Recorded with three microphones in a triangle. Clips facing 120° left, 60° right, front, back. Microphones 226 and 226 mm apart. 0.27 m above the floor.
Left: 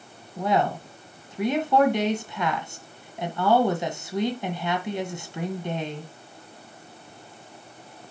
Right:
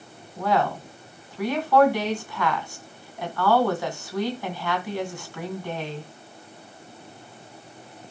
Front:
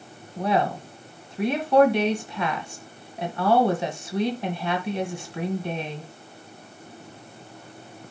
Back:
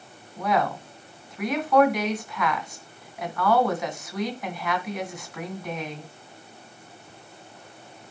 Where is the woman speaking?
55° left, 2 m.